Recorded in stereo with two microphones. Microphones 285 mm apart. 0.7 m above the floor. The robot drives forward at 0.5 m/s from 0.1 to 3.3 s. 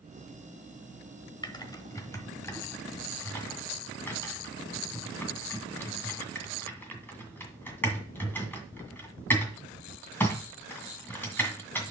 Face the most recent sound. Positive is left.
turn(degrees=5)  # may be behind; listen again after turning